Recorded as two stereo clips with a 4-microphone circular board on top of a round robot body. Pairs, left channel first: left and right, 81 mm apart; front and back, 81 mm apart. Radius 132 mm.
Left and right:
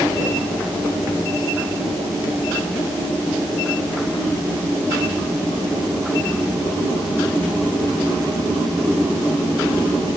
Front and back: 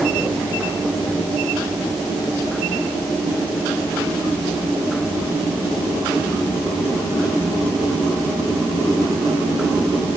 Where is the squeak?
I don't hear a squeak.